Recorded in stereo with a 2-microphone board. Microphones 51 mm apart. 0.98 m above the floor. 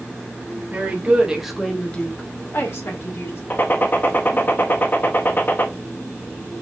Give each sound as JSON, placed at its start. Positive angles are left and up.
{"t": 0.7, "sound": "a woman speaking", "side_deg": -30, "distance_m": 1.7}
{"t": 3.5, "sound": "a gunshot", "side_deg": 45, "distance_m": 0.7}